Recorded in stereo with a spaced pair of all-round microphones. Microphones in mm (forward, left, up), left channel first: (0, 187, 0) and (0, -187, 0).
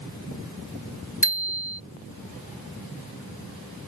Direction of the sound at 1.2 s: 5° right (ahead or behind).